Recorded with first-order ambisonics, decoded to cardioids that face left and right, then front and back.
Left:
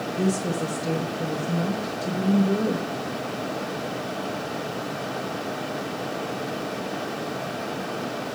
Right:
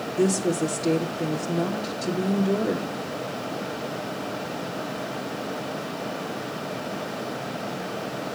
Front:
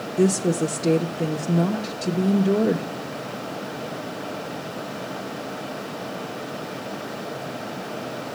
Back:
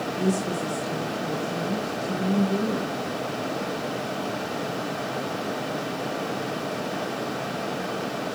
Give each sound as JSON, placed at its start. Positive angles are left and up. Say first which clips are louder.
{"t": 0.2, "sound": "a woman speaking", "louder": "right 4 dB, front 8 dB", "azimuth_deg": -5, "distance_m": 1.2}